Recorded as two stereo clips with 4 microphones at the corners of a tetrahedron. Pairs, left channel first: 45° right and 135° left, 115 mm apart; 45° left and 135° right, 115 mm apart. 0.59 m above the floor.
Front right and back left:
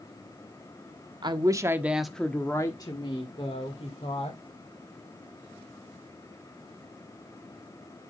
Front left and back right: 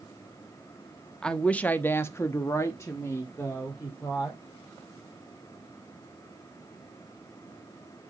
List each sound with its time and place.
1.2 s a woman speaking: 125° left, 1.0 m; by 4.4 s 25° right, 2 m